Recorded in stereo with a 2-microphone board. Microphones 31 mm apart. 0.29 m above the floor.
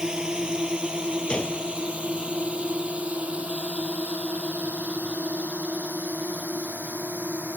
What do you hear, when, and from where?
0.0 s a drone: 25° right (ahead or behind); by 7.6 s 55° right (ahead or behind)
1.3 s a gunshot: 35° left (ahead or behind)